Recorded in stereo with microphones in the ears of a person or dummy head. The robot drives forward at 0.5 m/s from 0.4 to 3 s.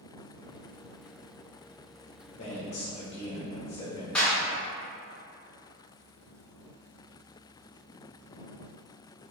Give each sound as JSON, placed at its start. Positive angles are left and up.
{"t": 2.4, "sound": "a man speaking", "side_deg": 45, "distance_m": 0.7}
{"t": 4.2, "sound": "a clap", "side_deg": 5, "distance_m": 0.9}